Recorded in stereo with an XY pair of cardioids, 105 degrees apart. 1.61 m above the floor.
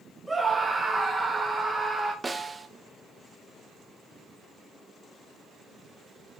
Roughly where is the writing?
No writing in this recording.